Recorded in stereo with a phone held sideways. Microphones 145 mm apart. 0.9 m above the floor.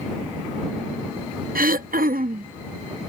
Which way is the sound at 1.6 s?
80° right.